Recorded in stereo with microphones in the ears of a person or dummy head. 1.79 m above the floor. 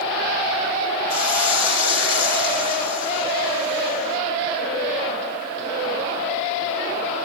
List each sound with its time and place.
1.1 s a hiss: 65° left (ahead or behind), 3 m